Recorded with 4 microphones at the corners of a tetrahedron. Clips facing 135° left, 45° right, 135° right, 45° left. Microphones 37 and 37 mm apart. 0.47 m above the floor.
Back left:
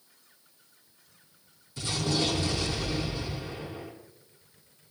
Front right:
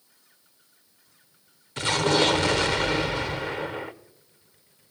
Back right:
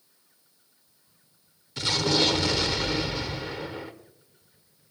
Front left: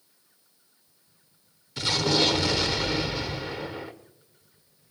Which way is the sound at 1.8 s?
45° right.